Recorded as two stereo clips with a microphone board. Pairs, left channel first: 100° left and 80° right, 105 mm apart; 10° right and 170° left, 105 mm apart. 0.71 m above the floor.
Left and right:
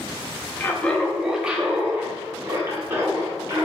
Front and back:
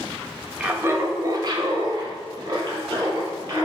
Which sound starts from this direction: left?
Laughter, at 0.6 s.